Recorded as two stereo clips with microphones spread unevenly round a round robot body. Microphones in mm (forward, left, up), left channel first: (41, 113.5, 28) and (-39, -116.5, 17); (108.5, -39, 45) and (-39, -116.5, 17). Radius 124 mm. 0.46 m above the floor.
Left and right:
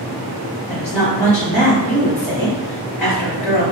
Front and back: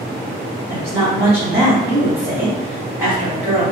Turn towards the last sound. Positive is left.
turn(degrees=50)